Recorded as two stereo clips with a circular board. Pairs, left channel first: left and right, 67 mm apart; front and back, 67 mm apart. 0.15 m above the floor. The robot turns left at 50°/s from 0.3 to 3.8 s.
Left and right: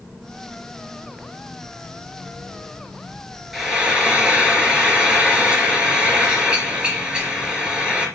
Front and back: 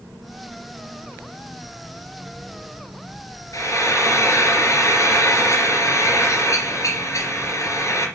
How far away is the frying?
About 3 m.